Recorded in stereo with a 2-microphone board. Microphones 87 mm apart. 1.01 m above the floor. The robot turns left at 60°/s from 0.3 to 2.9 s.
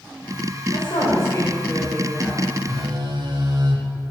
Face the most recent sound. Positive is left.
turn(degrees=-60)  # may be behind; listen again after turning